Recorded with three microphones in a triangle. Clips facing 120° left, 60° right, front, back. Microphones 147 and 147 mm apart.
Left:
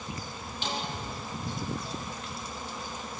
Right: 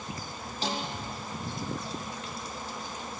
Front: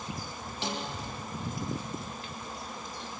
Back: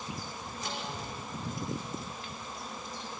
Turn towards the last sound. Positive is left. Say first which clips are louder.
# right 2 dB, front 5 dB
turn(degrees=-5)